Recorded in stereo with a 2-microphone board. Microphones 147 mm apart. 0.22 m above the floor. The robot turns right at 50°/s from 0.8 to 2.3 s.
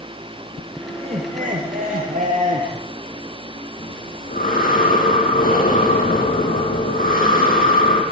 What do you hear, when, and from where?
0.9 s laughter: 140° right, 4 m; by 2.7 s 70° right, 4 m
3.8 s breathing: 75° left (ahead or behind), 9 m